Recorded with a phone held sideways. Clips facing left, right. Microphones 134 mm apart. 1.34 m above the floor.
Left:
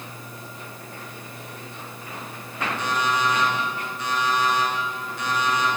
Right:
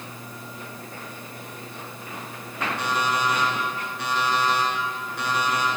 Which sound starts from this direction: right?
An alarm clock, at 2.8 s.